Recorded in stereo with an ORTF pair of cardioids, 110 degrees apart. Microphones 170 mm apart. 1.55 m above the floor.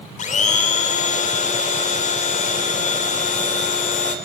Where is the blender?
50° left, 3.5 m.